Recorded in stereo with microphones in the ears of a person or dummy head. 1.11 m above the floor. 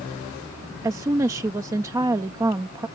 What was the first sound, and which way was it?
A woman speaking, 15° right (ahead or behind).